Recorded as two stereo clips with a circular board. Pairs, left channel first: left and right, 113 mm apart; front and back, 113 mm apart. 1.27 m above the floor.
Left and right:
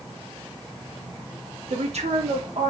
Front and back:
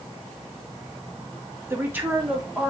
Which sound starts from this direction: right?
A woman speaking, at 1.7 s.